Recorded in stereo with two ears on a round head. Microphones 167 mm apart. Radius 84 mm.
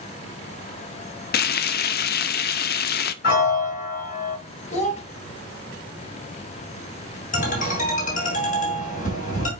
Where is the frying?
55° left (ahead or behind), 0.5 m.